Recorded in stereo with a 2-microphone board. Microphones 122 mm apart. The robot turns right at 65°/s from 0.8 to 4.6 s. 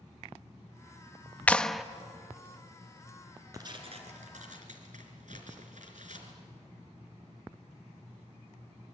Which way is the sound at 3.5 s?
150° right.